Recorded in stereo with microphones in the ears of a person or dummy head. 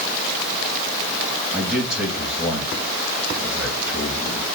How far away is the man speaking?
About 3 m.